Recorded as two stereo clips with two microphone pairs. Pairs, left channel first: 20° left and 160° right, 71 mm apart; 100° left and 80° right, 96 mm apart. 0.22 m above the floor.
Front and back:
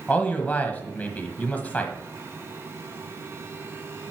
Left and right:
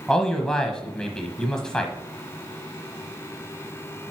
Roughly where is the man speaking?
Ahead left.